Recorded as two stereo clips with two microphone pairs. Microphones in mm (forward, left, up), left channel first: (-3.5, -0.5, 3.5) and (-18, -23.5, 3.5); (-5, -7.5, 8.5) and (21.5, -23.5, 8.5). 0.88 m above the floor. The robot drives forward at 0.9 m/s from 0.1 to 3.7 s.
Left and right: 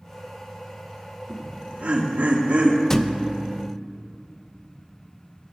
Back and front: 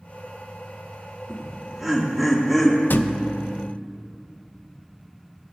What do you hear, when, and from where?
1.3 s laughter: 105° right, 2 m; by 2.8 s 135° right, 3 m
2.9 s a thud: 130° left, 0.5 m; by 3.6 s 160° left, 1.0 m